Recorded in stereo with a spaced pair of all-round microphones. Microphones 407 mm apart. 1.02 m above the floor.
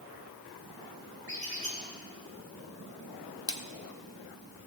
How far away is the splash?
About 0.7 m.